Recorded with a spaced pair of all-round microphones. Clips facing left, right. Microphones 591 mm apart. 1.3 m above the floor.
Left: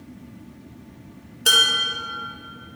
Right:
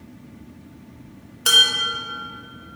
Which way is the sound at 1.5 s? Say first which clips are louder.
Left 2 dB; 30° right (ahead or behind).